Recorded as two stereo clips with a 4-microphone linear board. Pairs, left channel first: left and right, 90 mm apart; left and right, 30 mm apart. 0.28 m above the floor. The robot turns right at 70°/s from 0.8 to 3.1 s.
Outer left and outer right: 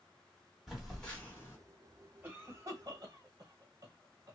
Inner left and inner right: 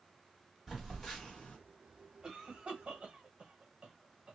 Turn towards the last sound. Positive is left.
turn(degrees=-40)  # may be behind; listen again after turning